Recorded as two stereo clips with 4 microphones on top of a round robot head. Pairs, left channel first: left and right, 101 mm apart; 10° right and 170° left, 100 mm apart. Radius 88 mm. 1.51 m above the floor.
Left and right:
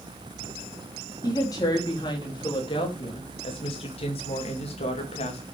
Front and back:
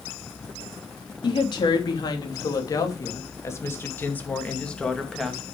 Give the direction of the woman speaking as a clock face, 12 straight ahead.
11 o'clock.